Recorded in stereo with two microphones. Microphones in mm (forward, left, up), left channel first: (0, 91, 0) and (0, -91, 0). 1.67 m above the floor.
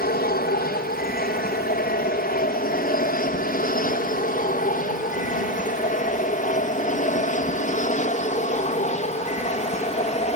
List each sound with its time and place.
0.0 s an aircraft: 60° left (ahead or behind); by 10.4 s 40° left (ahead or behind)